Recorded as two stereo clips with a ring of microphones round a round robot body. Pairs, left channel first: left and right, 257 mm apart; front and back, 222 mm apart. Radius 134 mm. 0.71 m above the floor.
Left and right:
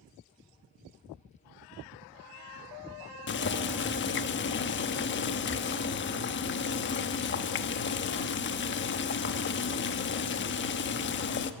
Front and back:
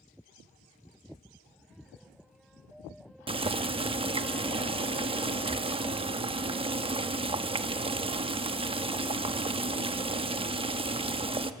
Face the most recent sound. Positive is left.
turn(degrees=120)